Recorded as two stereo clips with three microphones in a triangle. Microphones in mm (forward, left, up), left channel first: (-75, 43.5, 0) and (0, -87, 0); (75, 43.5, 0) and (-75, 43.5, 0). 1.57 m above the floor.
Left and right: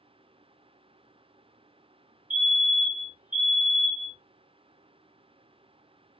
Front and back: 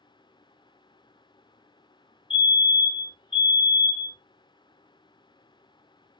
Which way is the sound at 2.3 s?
50° right.